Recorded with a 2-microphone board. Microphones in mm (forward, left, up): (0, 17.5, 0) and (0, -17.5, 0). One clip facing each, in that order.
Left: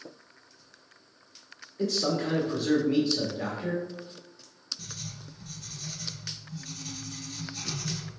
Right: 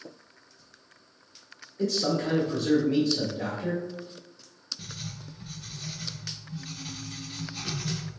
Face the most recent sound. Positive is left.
turn(degrees=-25)  # may be behind; listen again after turning